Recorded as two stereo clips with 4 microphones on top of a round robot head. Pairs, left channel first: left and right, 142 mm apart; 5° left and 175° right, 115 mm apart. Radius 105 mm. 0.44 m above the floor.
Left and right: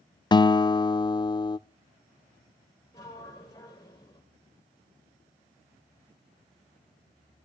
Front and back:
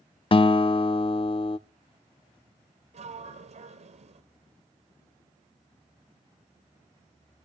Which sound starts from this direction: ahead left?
A guitar, at 0.3 s.